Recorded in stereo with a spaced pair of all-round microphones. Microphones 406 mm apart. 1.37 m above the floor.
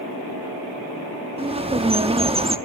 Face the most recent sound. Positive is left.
turn(degrees=-15)  # may be behind; listen again after turning